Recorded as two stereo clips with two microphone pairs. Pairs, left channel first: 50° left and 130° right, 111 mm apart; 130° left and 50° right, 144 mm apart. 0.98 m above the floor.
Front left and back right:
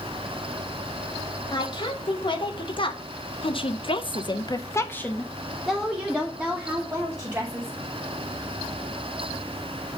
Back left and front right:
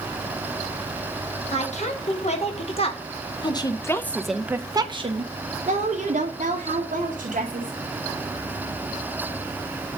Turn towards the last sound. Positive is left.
turn(degrees=-55)